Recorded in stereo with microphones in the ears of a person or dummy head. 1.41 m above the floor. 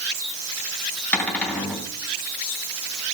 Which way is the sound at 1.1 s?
10° left (ahead or behind).